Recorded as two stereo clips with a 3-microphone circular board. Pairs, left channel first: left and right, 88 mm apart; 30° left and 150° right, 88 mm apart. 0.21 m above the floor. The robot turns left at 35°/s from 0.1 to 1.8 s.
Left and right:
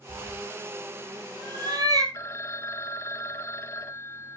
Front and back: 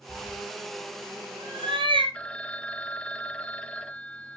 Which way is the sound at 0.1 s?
80° right.